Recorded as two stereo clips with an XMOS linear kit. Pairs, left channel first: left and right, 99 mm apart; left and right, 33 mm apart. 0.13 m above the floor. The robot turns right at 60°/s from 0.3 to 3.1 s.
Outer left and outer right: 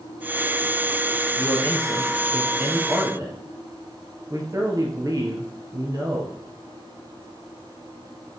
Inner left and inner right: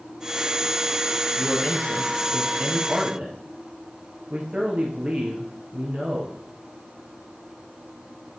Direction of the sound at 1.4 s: 120° left.